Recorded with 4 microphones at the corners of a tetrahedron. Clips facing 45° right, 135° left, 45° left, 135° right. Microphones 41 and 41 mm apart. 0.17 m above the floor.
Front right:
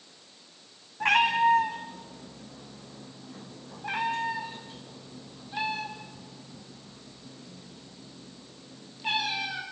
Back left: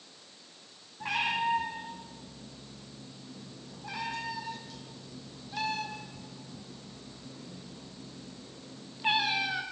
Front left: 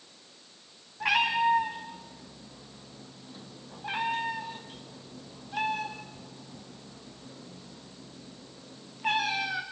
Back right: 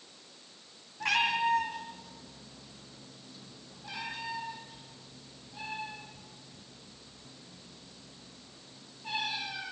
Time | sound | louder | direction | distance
1.0 | a cat meowing | front right 8 dB, front left 3 dB | 35° right | 5 m